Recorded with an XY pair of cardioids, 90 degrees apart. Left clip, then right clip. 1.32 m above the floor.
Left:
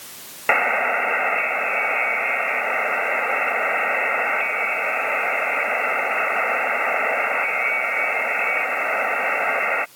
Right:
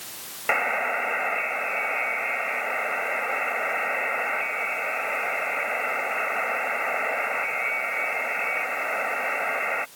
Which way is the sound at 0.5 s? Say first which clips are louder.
Left 5 dB; 45° left.